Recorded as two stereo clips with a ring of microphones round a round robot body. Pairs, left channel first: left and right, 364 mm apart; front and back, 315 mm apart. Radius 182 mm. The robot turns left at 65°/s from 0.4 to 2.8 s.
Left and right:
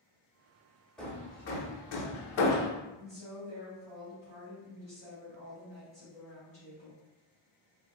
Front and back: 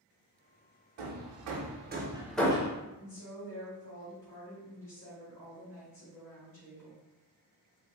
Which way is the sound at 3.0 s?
25° right.